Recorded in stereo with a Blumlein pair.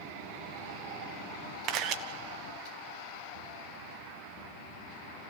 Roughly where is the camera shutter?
Ahead right.